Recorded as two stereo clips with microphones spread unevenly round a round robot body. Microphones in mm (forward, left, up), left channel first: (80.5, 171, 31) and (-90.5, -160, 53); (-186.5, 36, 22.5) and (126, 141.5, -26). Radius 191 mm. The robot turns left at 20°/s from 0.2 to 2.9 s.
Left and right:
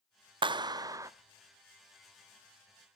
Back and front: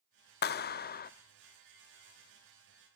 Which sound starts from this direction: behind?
A clap, at 0.4 s.